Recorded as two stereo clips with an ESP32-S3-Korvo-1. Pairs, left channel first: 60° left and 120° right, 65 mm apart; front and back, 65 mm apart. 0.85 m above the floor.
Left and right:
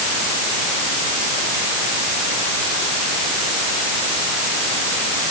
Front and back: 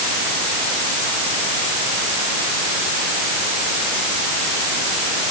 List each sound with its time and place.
Only background noise.